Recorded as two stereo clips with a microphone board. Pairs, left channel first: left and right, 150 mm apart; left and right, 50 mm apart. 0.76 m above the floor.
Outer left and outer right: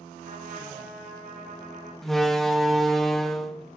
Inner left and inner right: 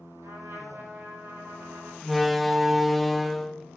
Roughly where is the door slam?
Centre.